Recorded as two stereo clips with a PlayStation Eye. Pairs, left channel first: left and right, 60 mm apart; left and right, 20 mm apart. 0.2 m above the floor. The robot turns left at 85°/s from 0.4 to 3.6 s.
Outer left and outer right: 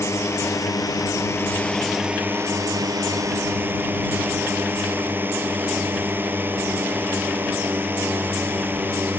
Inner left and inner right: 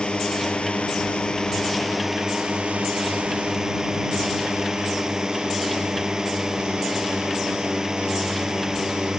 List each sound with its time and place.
0.0 s a drone: 125° left; by 9.2 s 145° right